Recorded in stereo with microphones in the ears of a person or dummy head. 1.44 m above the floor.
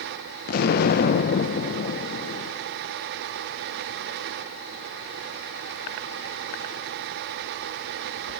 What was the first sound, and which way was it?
An explosion, 60° left (ahead or behind).